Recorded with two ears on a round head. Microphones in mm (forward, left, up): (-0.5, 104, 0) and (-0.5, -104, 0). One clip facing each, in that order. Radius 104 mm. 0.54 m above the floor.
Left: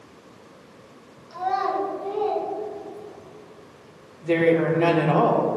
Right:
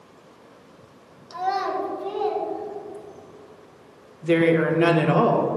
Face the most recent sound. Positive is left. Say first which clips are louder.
# right 1 dB
turn(degrees=-20)  # may be behind; listen again after turning